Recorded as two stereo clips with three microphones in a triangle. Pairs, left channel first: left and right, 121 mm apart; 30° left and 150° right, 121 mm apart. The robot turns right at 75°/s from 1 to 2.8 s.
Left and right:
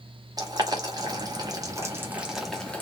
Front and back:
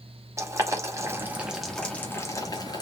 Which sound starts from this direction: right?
Boiling, at 0.4 s.